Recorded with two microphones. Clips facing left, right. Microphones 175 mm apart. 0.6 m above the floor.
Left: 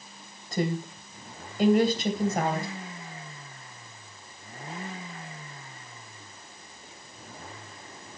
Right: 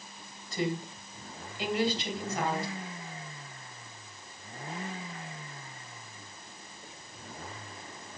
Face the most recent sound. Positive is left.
turn(degrees=45)  # may be behind; listen again after turning